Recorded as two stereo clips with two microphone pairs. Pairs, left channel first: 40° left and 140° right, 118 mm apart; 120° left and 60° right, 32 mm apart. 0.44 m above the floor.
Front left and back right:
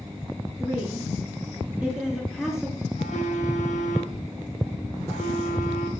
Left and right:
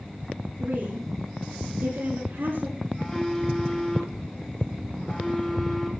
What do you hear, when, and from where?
0.6 s a woman speaking: 65° right, 7.5 m; by 2.9 s 55° right, 6.5 m
3.0 s a phone buzzing: 40° left, 1.9 m